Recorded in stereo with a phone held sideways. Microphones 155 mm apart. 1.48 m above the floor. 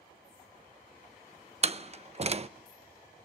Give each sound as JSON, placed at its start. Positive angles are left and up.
{"t": 1.6, "sound": "a door slam", "side_deg": -40, "distance_m": 0.7}